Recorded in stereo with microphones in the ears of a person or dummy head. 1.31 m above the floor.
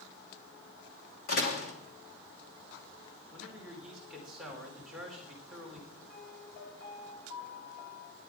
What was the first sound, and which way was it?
A door slam, 55° left (ahead or behind).